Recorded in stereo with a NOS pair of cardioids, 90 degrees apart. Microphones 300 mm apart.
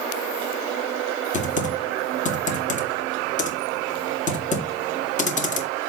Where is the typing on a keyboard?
25° left, 1.9 m.